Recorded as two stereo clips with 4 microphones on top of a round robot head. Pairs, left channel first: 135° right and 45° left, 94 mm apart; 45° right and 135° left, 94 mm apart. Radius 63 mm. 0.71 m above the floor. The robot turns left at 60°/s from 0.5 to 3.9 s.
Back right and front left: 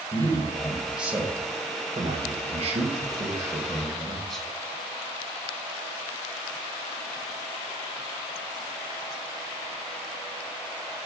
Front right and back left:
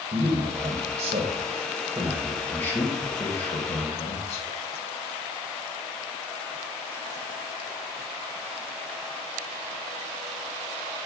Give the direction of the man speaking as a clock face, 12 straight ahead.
7 o'clock.